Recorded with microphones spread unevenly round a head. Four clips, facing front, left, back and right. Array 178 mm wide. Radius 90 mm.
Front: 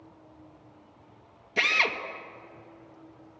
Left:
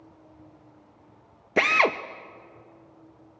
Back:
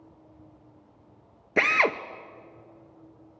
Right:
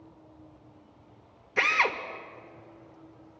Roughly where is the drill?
Behind left.